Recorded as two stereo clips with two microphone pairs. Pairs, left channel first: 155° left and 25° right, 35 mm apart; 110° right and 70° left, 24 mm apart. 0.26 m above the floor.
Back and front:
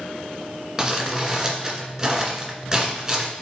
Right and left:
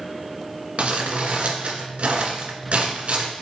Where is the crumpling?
55° left, 1.7 m.